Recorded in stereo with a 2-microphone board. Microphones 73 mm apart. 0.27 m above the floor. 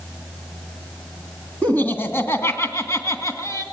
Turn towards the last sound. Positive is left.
turn(degrees=45)  # may be behind; listen again after turning